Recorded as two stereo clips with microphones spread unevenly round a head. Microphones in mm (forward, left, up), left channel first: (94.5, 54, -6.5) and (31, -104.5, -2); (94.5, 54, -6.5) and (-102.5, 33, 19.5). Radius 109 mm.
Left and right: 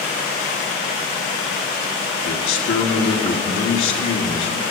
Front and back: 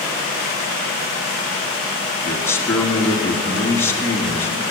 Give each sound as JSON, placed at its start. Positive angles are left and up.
{"t": 2.2, "sound": "a man speaking", "azimuth_deg": 85, "distance_m": 1.8}